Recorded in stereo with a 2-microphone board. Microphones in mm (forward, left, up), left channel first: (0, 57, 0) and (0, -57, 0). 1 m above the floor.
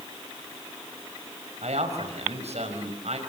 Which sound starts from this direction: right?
A man speaking, at 1.6 s.